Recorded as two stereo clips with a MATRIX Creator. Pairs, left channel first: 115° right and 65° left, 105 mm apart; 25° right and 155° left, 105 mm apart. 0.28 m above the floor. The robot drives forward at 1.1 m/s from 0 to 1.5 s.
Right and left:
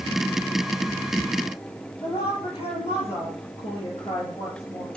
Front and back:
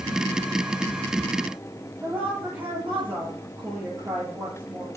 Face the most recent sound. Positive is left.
turn(degrees=-135)